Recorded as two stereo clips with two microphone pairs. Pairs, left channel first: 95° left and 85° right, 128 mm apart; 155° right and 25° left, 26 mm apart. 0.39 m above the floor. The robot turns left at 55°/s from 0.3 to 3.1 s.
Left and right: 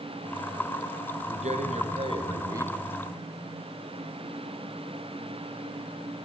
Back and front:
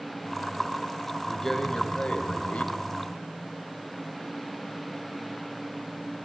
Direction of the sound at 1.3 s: 75° right.